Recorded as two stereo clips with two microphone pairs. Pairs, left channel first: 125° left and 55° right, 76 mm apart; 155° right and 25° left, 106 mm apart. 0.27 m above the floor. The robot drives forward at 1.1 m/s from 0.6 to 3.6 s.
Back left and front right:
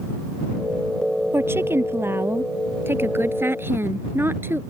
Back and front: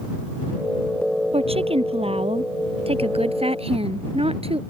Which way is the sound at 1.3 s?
Straight ahead.